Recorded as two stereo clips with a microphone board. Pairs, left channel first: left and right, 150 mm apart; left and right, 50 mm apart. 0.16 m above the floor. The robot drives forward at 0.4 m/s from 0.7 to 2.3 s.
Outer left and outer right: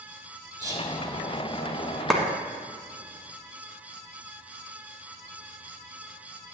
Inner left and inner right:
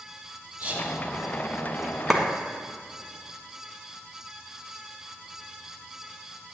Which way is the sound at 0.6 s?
20° right (ahead or behind).